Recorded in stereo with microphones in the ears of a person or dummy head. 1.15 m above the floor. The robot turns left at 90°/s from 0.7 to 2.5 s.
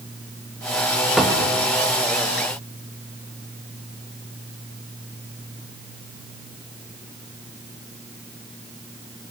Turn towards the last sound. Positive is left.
turn(degrees=-115)